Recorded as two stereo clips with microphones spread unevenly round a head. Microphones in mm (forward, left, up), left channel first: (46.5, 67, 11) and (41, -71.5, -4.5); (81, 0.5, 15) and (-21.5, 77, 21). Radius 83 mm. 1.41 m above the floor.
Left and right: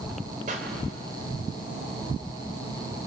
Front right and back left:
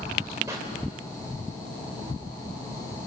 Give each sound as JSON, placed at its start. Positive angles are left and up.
{"t": 0.5, "sound": "a pop", "azimuth_deg": -145, "distance_m": 3.0}